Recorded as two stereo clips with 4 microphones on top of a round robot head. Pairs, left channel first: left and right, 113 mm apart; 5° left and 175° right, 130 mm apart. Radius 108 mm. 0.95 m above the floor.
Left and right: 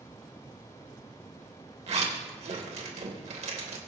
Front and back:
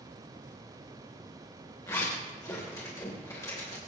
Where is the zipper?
70° right, 3 m.